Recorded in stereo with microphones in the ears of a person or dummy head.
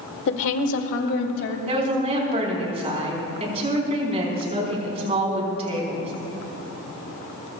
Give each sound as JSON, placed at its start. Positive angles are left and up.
{"t": 0.3, "sound": "a woman speaking", "side_deg": 60, "distance_m": 1.3}
{"t": 1.7, "sound": "a woman speaking", "side_deg": -35, "distance_m": 4.5}